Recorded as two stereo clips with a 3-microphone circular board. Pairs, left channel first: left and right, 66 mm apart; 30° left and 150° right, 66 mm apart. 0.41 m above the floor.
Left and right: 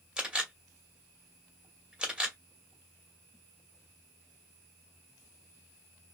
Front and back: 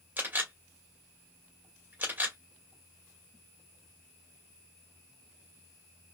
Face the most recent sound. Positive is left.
turn(degrees=-150)